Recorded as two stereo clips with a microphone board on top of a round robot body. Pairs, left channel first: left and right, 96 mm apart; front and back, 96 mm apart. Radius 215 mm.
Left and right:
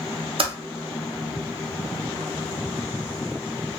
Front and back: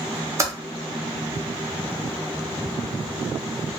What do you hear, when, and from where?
0.4 s typing on a keyboard: 120° right, 0.7 m